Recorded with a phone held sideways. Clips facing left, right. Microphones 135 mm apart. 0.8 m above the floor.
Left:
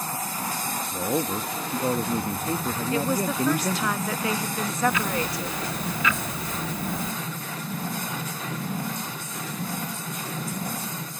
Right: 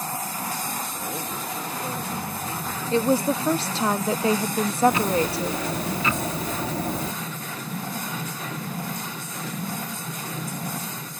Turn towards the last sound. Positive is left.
turn(degrees=-35)  # may be behind; listen again after turning